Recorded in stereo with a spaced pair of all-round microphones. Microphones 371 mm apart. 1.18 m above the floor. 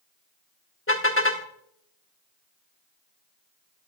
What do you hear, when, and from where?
0.9 s a car horn: 35° left (ahead or behind), 2 m